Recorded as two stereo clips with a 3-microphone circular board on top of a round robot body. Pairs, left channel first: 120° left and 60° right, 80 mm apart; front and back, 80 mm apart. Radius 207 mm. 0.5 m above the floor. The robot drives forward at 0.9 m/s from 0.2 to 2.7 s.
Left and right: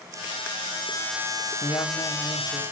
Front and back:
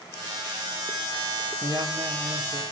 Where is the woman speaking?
150° left, 1.3 m; by 2.6 s 165° left, 2 m.